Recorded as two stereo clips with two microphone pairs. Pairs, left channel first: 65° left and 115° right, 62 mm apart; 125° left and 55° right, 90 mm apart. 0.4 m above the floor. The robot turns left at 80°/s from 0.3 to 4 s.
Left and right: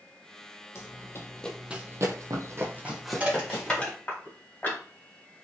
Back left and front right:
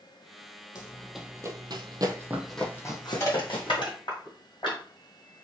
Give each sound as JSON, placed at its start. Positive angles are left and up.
{"t": 0.8, "sound": "running footsteps", "azimuth_deg": 90, "distance_m": 0.7}
{"t": 3.2, "sound": "crushing", "azimuth_deg": 180, "distance_m": 1.8}